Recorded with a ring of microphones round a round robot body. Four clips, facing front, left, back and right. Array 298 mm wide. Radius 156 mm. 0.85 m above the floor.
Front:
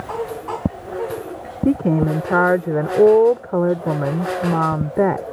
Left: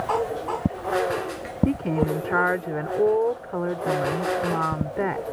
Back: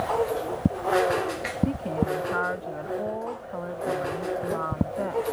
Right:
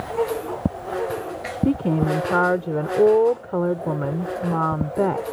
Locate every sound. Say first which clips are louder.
1.6 s a woman speaking: right 3 dB, front 11 dB; 20° right